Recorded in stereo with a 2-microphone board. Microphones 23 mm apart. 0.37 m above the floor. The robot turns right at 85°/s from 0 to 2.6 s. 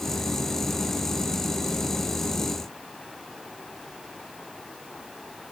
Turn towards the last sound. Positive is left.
No sound to turn to.